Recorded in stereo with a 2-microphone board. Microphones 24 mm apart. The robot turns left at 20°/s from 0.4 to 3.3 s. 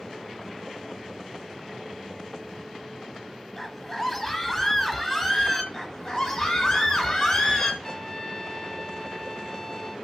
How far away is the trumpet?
About 1.9 m.